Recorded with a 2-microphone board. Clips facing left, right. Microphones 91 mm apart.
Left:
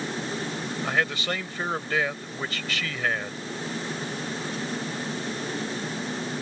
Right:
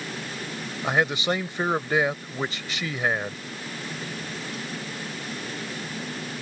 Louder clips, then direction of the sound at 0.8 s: Right 4 dB; 20° right (ahead or behind).